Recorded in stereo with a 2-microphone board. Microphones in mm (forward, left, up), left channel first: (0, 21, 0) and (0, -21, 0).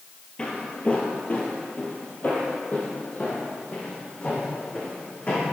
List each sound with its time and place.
0.4 s footsteps: 25° left (ahead or behind), 1.5 m; by 5.4 s 40° left (ahead or behind), 4 m